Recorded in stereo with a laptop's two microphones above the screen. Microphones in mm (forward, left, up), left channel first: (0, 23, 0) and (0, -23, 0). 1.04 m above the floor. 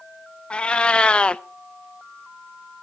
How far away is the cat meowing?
About 0.6 m.